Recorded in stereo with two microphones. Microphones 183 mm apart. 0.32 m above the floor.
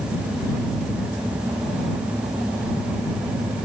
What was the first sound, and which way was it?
Only background noise.